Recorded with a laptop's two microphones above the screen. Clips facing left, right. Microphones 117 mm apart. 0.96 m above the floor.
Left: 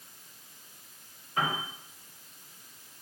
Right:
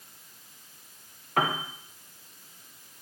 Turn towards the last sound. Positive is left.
turn(degrees=-70)  # may be behind; listen again after turning